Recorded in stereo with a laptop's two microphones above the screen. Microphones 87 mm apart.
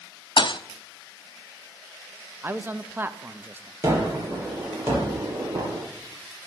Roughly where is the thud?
Left.